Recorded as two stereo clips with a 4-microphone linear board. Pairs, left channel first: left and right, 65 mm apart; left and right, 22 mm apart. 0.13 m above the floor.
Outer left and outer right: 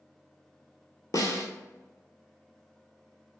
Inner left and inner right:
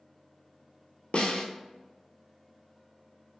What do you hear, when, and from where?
1.1 s a snare drum: 70° left (ahead or behind), 0.9 m